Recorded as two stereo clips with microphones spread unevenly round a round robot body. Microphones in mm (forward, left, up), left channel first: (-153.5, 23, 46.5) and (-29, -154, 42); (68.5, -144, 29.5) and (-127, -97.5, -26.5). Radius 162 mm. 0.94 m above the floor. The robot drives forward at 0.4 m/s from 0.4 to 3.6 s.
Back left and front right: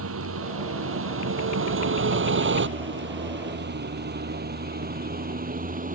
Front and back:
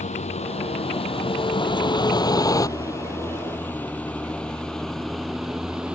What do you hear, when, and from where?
0.0 s a vehicle: 70° right; by 6.0 s 105° right